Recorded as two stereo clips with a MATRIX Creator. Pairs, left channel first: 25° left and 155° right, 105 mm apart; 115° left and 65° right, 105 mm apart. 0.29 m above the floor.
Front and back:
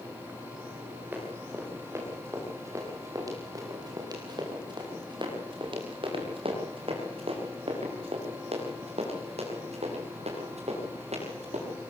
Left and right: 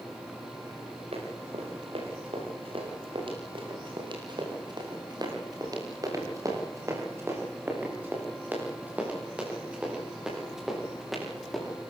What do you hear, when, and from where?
1.1 s running footsteps: 85° right, 9 m; by 11.8 s 155° right, 11 m